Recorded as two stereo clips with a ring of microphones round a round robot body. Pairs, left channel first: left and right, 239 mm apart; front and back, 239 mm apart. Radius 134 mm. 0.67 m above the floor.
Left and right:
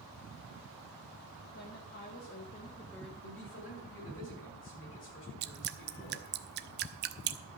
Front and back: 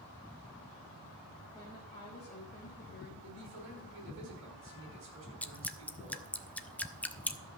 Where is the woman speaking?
75° left, 2 m; by 3.1 s straight ahead, 1.3 m.